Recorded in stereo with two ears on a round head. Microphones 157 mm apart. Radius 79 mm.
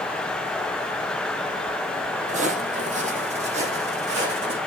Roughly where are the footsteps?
Right.